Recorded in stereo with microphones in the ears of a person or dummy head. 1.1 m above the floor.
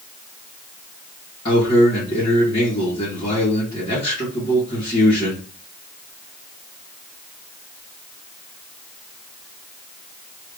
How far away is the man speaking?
About 1.6 m.